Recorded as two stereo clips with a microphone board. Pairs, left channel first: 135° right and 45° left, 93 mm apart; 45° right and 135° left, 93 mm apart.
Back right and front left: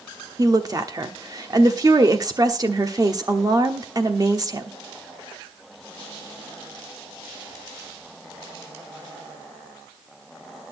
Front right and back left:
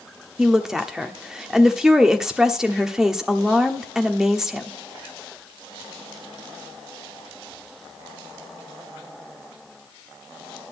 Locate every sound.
0.4 s a woman speaking: 55° left, 1.1 m